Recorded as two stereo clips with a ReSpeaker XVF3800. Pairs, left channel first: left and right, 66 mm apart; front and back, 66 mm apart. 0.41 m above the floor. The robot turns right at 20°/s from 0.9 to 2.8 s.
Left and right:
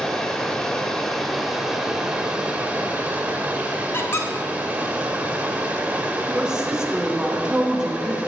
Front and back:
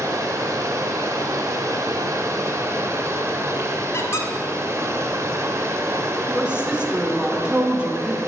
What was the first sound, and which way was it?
Running water, 170° left.